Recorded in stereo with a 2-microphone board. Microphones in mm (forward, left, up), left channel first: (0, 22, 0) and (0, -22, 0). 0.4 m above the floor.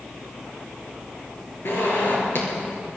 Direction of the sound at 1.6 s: 55° left (ahead or behind).